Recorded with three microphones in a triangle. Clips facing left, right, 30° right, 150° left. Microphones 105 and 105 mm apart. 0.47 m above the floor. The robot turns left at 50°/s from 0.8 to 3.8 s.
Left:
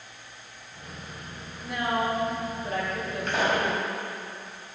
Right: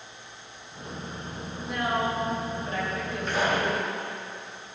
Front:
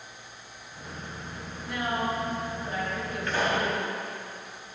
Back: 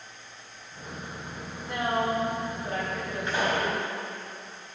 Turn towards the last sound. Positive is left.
turn(degrees=55)